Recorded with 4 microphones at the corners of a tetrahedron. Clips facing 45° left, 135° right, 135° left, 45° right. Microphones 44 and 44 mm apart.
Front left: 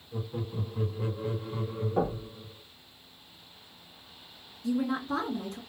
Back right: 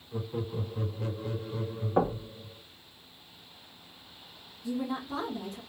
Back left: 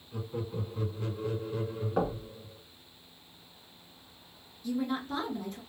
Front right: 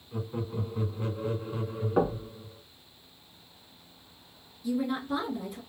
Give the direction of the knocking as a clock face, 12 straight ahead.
4 o'clock.